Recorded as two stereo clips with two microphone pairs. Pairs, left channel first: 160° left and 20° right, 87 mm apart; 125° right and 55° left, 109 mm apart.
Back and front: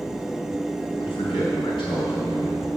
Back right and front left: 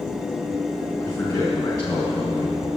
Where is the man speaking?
175° left, 4.5 m; by 2.7 s 175° right, 4 m.